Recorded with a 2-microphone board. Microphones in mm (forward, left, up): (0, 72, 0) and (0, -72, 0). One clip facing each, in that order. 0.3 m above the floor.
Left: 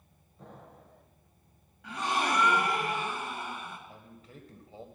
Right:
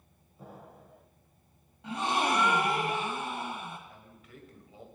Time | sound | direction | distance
0.4 | an explosion | 5° right (ahead or behind) | 0.9 m
1.8 | a gasp | 25° right (ahead or behind) | 1.5 m
3.9 | a man speaking | 35° left (ahead or behind) | 1.7 m